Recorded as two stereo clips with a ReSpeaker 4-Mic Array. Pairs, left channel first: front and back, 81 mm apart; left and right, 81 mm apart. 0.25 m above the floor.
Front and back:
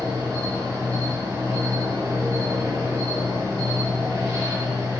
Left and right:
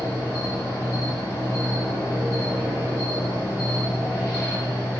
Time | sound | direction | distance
0.0 | an insect | 135° left | 1.5 m